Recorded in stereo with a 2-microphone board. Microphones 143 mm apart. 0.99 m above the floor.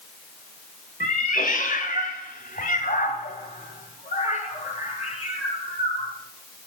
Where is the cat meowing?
65° left (ahead or behind), 2.0 m; by 6.1 s 45° left (ahead or behind), 4.5 m.